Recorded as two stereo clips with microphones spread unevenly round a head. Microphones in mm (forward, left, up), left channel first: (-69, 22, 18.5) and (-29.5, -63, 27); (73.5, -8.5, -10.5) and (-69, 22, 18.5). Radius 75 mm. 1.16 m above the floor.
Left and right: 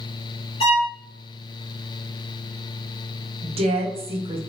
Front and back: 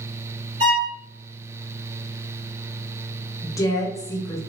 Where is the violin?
120° left, 1.9 m.